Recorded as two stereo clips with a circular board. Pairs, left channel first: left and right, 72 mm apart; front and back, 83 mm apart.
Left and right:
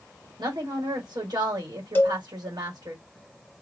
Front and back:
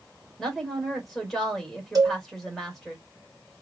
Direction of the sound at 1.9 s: 145° left.